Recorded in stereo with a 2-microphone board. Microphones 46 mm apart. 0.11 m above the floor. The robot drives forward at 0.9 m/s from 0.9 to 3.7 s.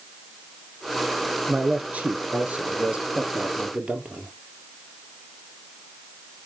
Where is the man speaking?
35° right (ahead or behind), 1.5 m; by 4.3 s 20° right (ahead or behind), 2.5 m.